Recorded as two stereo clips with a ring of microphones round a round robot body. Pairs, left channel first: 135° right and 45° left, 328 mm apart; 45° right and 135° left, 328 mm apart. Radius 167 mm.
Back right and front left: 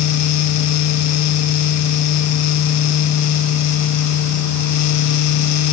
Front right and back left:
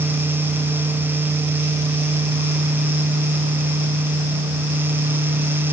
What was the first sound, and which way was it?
Only background noise.